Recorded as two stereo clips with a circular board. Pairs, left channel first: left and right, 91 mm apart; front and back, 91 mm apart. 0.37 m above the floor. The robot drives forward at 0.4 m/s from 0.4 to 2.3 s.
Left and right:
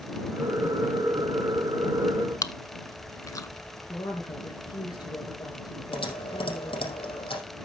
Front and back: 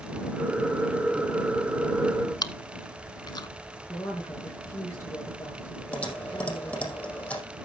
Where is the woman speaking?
55° left, 5.5 m.